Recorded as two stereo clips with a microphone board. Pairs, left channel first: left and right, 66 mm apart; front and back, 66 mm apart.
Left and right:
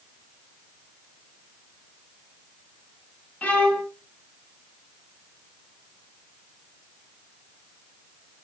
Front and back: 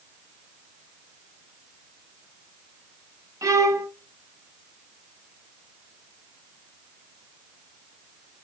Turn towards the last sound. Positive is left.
turn(degrees=155)